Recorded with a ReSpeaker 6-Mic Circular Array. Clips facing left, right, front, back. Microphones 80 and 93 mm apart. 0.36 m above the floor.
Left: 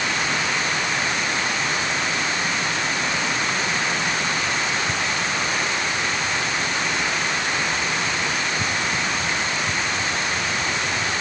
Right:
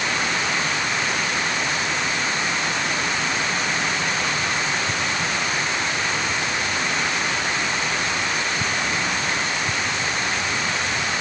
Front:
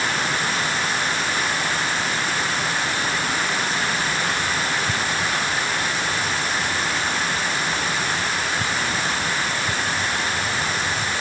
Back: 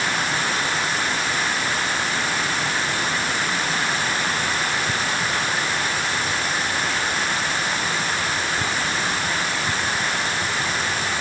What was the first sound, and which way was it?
Only background noise.